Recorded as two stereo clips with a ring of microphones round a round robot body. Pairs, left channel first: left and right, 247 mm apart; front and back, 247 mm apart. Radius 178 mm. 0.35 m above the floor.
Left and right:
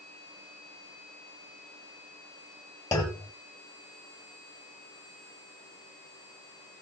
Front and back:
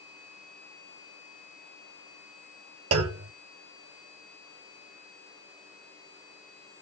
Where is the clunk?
170° left, 0.9 m.